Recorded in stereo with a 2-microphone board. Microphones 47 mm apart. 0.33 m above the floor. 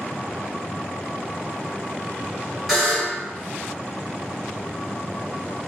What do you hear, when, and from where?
2.7 s a buzzer: 5° right (ahead or behind), 1.7 m